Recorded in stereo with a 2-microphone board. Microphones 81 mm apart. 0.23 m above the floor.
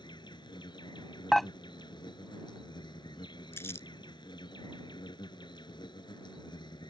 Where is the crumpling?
30° left (ahead or behind).